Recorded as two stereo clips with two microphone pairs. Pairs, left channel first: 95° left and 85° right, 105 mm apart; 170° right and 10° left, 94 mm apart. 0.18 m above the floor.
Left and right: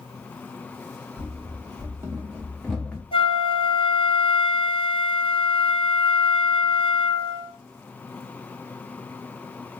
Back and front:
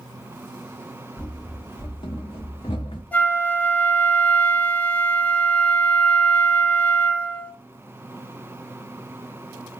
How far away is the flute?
About 0.5 m.